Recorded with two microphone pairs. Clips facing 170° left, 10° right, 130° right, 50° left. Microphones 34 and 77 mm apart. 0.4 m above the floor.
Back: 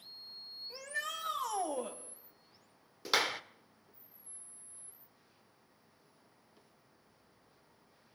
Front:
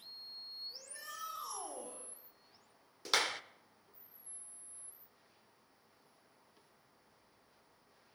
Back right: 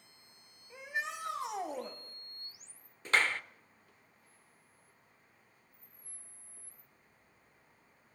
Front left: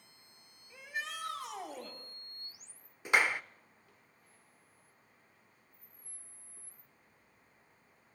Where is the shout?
170° left, 2 m.